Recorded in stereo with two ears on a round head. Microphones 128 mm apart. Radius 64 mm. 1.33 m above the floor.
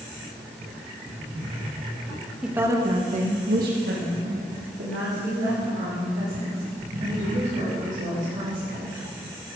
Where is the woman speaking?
5° right (ahead or behind), 1.5 m; by 8.9 s 60° right (ahead or behind), 8.5 m.